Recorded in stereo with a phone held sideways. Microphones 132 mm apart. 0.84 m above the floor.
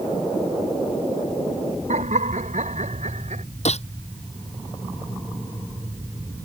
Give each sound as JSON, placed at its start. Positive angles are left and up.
{"t": 1.9, "sound": "laughter", "side_deg": -70}
{"t": 3.6, "sound": "a gunshot", "side_deg": 55}